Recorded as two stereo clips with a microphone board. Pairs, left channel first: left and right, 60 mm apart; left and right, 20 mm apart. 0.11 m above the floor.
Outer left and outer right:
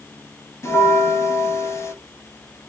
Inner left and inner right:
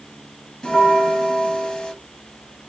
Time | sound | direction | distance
0.6 | a bell | 50° left (ahead or behind) | 1.2 m